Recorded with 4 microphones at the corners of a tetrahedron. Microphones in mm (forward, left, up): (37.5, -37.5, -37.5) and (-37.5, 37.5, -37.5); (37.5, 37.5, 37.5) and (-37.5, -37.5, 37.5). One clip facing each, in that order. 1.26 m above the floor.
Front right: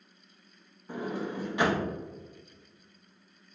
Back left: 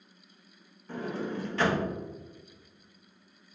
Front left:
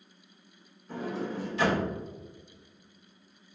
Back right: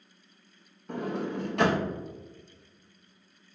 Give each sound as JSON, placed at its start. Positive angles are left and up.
{"t": 0.9, "sound": "a sliding door", "azimuth_deg": -120, "distance_m": 0.5}